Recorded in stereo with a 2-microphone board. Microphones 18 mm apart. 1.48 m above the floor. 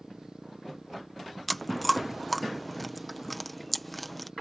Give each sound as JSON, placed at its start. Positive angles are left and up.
{"t": 0.0, "sound": "a motorcycle", "side_deg": -40}
{"t": 1.5, "sound": "chewing", "side_deg": 5}